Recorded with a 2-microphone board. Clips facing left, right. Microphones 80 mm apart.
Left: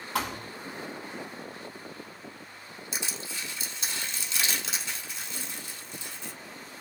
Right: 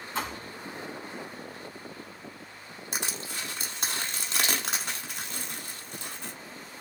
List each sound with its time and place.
0.1 s a thud: 85° left, 1.1 m
2.9 s crushing: 55° right (ahead or behind), 1.0 m